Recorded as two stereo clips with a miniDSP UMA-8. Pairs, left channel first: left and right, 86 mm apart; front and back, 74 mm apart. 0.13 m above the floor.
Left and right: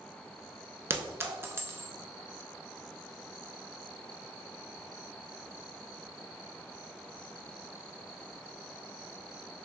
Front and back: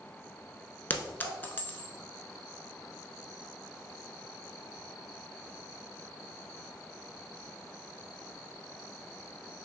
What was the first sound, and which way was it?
A clink, 50° right.